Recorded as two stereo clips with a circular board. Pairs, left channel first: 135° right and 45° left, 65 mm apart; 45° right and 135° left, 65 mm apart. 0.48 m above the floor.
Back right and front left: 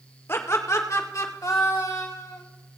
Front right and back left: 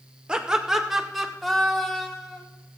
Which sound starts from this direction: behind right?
Laughter, at 0.3 s.